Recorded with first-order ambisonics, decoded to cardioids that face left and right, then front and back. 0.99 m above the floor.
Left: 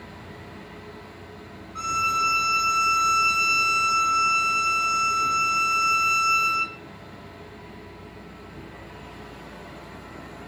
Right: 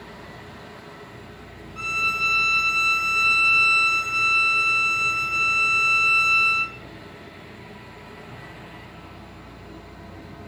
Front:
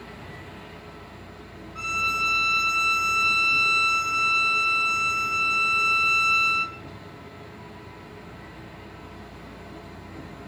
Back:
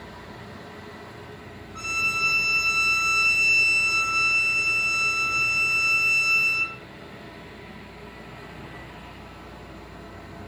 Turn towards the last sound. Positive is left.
turn(degrees=115)